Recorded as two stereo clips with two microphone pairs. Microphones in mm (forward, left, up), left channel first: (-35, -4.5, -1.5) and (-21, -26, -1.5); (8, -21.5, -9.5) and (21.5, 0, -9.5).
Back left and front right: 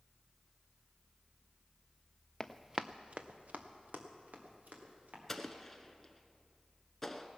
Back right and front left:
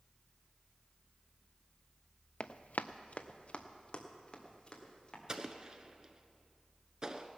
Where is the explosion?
50° left, 1.0 m.